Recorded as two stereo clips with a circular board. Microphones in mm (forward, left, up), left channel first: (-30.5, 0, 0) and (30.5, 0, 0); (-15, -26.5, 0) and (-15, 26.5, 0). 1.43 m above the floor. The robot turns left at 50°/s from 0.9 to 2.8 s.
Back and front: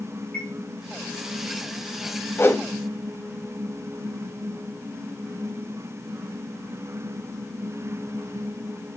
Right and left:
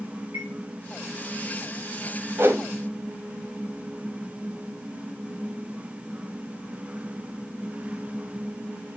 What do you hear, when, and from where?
0.3 s a chime: 115° left, 5.5 m
2.4 s a whoosh: 130° left, 1.6 m; by 2.7 s 120° left, 1.6 m